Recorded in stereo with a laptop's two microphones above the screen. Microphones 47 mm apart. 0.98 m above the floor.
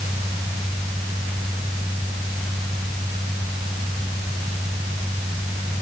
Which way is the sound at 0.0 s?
75° right (ahead or behind).